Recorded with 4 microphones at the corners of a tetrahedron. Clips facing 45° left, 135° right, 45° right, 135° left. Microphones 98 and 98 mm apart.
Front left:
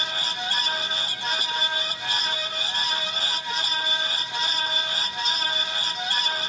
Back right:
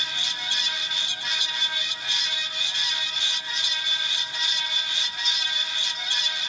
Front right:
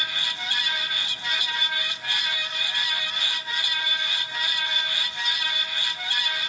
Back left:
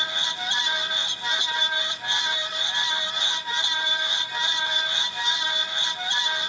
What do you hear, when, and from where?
Only background noise.